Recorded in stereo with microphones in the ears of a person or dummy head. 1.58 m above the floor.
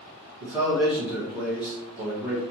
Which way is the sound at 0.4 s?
15° right (ahead or behind).